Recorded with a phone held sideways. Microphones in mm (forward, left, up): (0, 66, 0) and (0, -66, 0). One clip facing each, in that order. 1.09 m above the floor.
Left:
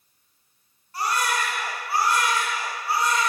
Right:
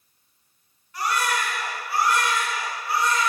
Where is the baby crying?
40° left (ahead or behind), 4 m.